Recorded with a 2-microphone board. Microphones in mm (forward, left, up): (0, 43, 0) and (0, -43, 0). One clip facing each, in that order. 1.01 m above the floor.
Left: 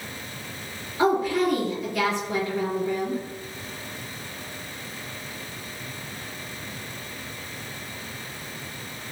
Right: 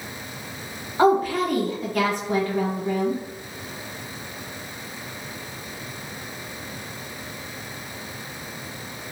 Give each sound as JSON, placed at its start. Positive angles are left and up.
{"t": 1.0, "sound": "a woman speaking", "side_deg": -50, "distance_m": 1.1}